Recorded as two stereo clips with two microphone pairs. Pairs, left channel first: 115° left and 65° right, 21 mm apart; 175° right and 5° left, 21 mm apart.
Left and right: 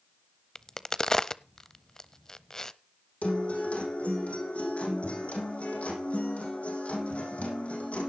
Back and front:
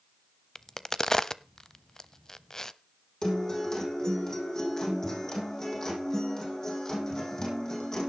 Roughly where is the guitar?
Behind left.